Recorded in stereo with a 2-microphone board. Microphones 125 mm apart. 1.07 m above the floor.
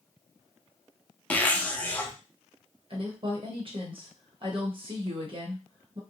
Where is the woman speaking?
45° right (ahead or behind), 0.9 m.